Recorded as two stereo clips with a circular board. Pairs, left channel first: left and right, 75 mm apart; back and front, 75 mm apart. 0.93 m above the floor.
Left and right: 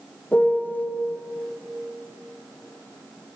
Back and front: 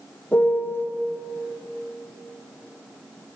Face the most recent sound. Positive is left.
turn(degrees=145)